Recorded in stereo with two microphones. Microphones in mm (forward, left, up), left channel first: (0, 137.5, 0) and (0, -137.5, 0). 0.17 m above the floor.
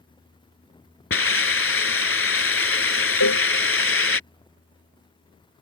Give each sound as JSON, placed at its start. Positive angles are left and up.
{"t": 1.1, "sound": "a hiss", "side_deg": 45}
{"t": 3.2, "sound": "a cowbell", "side_deg": 75}